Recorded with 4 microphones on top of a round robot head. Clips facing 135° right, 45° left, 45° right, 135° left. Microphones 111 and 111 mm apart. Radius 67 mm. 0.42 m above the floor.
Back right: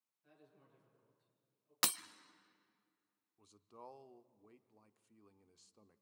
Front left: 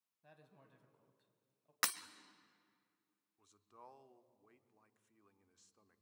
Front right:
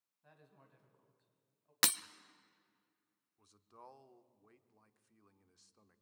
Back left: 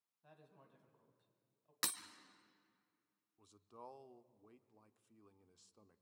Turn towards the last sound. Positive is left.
turn(degrees=-170)